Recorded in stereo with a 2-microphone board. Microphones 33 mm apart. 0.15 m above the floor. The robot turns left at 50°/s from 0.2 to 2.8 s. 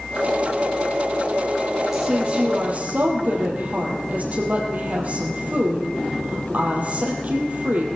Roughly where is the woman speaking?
Ahead.